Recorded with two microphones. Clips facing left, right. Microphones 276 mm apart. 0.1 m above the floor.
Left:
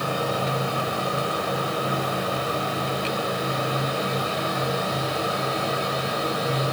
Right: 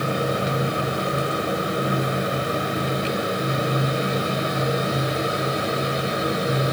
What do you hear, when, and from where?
Only background noise.